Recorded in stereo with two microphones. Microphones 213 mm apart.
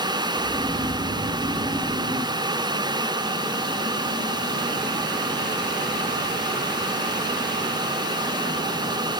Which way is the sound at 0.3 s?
15° right (ahead or behind).